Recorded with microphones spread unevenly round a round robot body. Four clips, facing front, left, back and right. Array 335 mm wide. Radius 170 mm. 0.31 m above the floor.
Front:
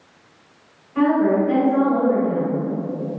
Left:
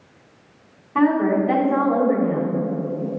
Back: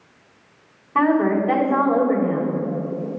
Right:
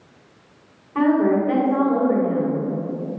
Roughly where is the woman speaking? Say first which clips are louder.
Even, front 1 dB; behind.